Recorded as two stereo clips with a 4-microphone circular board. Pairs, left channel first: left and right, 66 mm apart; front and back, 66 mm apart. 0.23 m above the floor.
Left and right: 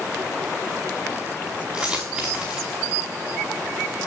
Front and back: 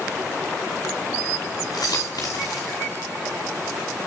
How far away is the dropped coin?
About 5.5 m.